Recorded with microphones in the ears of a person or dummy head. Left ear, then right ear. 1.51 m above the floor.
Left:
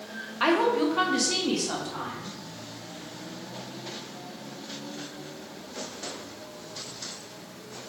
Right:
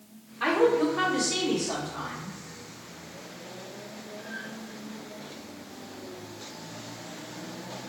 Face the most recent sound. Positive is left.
turn(degrees=80)